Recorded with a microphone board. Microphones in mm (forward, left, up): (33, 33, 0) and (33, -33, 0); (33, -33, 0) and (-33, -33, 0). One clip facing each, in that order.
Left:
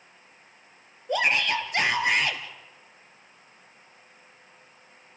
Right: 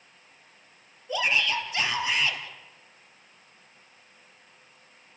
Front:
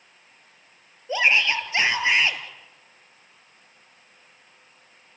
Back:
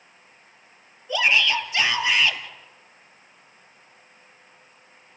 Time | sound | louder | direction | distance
1.1 | a shout | left 2 dB, even | 60° left | 3 m